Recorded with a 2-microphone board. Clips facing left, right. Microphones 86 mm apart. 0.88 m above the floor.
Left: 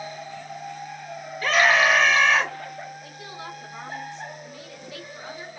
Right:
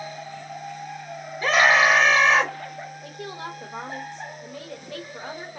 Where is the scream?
25° right (ahead or behind), 1.6 m.